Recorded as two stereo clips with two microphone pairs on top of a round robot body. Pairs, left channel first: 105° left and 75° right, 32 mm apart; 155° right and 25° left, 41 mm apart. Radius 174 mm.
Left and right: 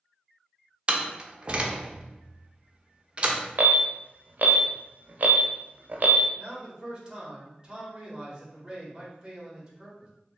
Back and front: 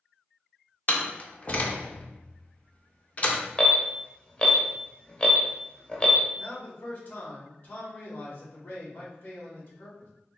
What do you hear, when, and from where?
0.9 s a door slam: 110° right, 0.8 m
3.6 s an alarm: 90° right, 0.7 m
6.4 s a man speaking: 130° right, 1.6 m